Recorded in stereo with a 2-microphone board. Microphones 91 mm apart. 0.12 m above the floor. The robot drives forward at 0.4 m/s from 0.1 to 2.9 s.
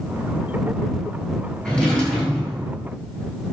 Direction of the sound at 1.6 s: 10° left (ahead or behind).